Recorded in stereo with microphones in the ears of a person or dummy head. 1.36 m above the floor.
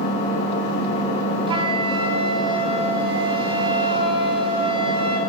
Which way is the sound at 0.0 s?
40° left (ahead or behind).